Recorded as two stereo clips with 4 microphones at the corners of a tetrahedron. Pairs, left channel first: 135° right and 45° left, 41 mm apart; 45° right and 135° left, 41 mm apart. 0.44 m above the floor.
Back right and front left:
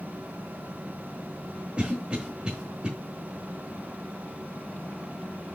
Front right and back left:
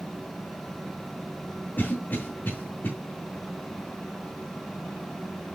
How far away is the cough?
About 1.5 m.